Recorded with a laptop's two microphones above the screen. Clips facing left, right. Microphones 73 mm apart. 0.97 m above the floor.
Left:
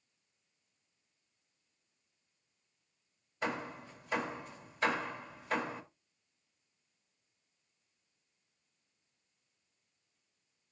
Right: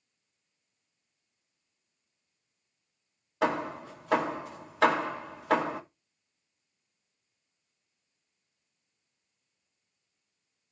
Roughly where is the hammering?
Right.